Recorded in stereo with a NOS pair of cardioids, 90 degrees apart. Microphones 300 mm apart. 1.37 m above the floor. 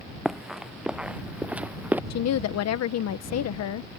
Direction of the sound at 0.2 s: Straight ahead.